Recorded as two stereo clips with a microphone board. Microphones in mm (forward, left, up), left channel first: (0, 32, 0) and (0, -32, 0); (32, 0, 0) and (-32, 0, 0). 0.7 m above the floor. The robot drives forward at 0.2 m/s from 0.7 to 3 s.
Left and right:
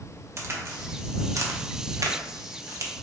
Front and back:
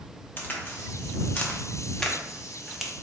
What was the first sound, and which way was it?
A crack, 55° right.